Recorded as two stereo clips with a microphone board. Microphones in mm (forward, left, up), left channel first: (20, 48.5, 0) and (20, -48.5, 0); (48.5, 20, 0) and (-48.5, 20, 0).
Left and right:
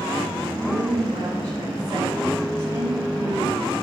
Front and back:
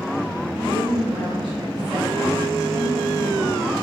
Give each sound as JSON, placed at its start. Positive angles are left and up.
{"t": 0.6, "sound": "a woman speaking", "azimuth_deg": -105, "distance_m": 5.5}